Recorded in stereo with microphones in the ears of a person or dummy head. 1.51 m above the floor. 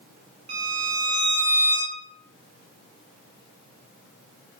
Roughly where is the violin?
Right.